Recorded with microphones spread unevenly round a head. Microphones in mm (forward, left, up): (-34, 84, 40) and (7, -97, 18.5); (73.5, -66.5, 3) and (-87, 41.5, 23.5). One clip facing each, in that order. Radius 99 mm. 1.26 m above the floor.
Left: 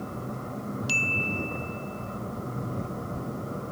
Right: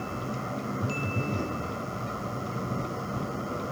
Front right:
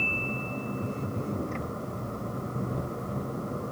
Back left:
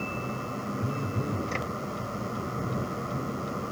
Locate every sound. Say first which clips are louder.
0.8 s a phone buzzing: right 2 dB, back left 1 dB; 140° right